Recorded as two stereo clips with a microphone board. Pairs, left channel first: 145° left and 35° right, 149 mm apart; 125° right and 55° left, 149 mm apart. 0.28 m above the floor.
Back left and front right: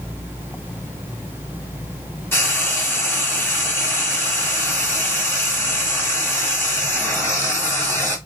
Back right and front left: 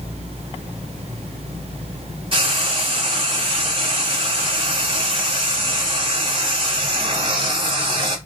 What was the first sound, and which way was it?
Frying, 80° left.